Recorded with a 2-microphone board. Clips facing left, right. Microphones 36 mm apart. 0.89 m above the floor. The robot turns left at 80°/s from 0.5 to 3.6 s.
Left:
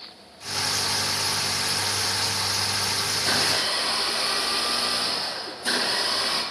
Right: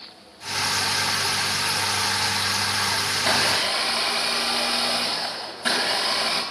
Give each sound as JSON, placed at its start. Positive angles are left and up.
{"t": 3.1, "sound": "a blender", "azimuth_deg": -40, "distance_m": 5.0}